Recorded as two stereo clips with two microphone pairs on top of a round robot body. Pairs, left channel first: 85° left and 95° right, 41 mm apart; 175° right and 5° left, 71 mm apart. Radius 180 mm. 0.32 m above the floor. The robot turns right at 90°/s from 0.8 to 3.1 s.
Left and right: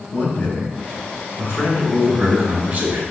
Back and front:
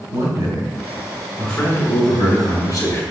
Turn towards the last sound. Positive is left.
turn(degrees=-110)